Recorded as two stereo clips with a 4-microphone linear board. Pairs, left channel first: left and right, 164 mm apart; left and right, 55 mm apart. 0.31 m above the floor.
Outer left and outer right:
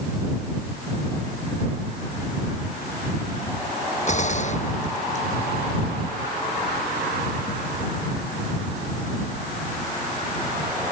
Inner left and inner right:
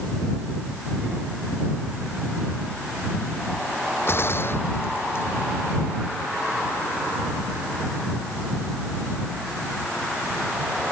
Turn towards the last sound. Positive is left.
turn(degrees=45)  # may be behind; listen again after turning